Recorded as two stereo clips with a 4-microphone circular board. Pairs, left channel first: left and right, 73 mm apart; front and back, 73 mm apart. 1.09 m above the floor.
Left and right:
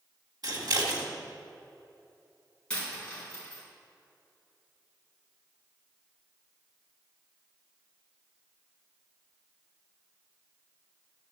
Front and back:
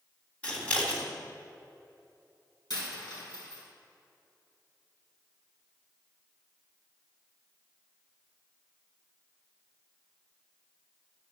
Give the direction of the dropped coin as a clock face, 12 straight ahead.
12 o'clock.